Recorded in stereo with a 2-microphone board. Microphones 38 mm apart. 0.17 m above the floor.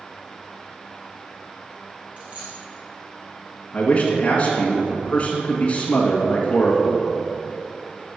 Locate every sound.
2.2 s a dropped coin: 35° right (ahead or behind), 3 m
3.7 s a man speaking: 35° left (ahead or behind), 1.9 m